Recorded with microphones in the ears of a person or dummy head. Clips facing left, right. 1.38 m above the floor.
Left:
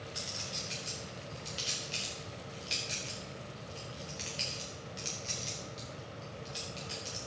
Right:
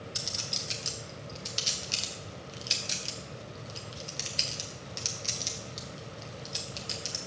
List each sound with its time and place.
0.1 s a clink: 65° right (ahead or behind), 1.1 m